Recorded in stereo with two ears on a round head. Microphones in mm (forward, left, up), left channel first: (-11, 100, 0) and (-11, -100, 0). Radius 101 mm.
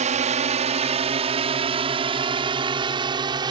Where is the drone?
35° right (ahead or behind); by 3.5 s 20° right (ahead or behind).